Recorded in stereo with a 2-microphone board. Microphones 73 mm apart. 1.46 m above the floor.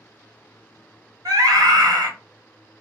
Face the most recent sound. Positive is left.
turn(degrees=-65)  # may be behind; listen again after turning